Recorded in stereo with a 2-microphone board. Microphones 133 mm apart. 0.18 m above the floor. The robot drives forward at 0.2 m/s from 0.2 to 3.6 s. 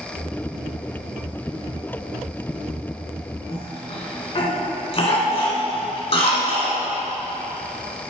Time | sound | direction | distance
3.5 | a cough | 45° left (ahead or behind) | 1.7 m